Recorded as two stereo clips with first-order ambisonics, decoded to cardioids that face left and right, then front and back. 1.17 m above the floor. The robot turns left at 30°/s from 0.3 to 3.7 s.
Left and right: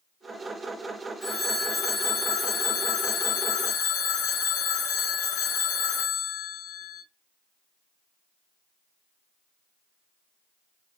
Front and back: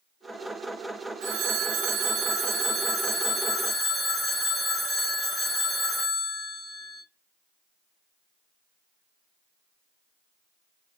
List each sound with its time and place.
1.2 s a phone ringing: 170° left, 1.0 m; by 7.0 s 95° left, 1.0 m